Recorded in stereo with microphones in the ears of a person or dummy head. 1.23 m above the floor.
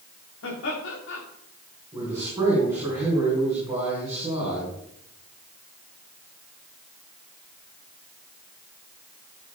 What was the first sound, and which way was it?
Laughter, 75° left (ahead or behind).